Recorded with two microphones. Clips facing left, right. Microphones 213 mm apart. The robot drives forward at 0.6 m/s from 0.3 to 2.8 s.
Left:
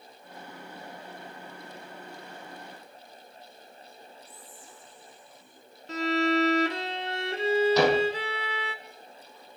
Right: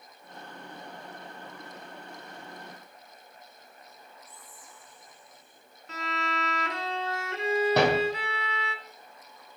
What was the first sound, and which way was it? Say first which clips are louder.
Whispering: left 3 dB; 30° left (ahead or behind).